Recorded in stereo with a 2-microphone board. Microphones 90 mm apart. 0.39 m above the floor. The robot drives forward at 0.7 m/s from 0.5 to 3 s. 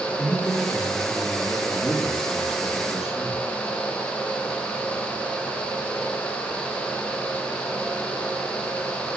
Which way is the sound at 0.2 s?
5° right (ahead or behind).